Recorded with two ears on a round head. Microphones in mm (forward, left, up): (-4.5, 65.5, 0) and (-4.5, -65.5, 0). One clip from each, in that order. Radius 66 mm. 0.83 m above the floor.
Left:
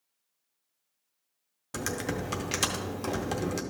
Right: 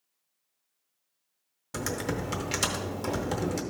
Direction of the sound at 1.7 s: 10° left (ahead or behind).